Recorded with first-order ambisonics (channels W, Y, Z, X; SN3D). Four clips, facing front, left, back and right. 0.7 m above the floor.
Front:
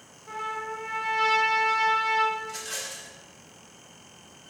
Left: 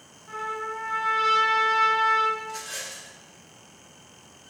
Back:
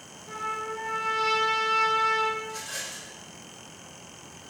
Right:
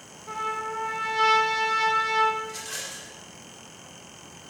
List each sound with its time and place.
0.3 s a trumpet: 75° right, 1.6 m
2.4 s a rattle: 30° right, 2 m